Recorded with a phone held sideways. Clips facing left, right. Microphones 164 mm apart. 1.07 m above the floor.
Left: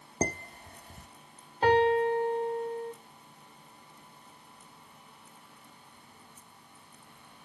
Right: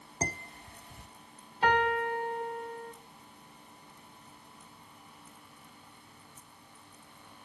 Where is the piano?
40° left (ahead or behind), 2.5 m.